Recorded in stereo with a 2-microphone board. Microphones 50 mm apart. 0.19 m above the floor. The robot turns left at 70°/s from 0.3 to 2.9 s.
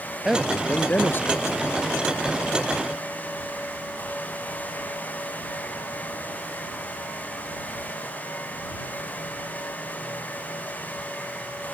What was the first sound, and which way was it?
A man speaking, 170° right.